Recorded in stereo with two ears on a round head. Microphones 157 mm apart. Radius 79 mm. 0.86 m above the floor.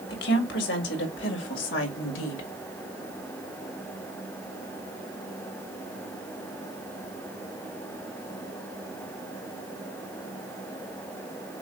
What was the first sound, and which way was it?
A woman speaking, 70° left (ahead or behind).